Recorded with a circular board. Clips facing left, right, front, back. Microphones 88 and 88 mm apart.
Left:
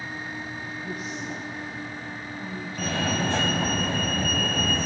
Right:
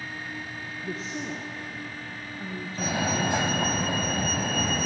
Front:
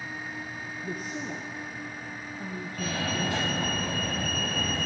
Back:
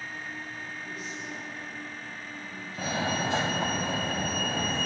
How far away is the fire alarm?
About 2.5 m.